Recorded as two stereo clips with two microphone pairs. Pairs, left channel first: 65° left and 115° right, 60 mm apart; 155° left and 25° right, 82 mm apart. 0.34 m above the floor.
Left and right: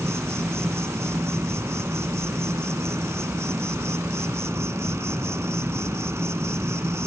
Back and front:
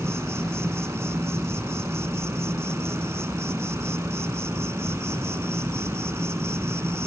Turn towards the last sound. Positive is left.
turn(degrees=-80)